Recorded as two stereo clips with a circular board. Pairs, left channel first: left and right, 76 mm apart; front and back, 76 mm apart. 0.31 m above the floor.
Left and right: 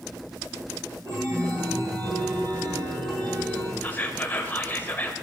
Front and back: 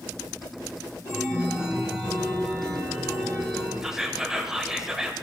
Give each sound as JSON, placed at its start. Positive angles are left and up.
{"t": 1.1, "sound": "a chime", "azimuth_deg": -80, "distance_m": 4.0}
{"t": 3.8, "sound": "whispering", "azimuth_deg": 105, "distance_m": 0.9}